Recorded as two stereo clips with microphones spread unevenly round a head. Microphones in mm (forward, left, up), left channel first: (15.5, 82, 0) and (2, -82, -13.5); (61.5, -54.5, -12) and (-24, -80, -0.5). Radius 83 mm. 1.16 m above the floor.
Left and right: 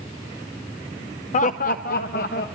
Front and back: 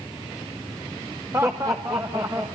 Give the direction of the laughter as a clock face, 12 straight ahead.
8 o'clock.